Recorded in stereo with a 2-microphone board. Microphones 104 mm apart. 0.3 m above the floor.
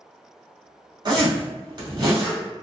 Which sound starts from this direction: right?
A zipper, at 1.1 s.